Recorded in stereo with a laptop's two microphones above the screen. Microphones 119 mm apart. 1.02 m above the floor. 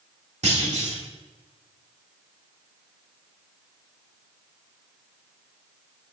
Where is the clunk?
70° right (ahead or behind), 1.5 m.